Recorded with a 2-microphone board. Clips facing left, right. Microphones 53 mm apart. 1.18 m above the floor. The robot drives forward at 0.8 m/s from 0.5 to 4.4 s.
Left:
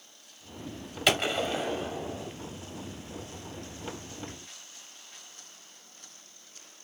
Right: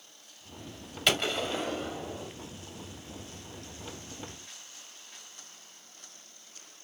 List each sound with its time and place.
1.1 s a gunshot: 10° left (ahead or behind), 1.5 m; by 2.3 s 5° left (ahead or behind), 2.5 m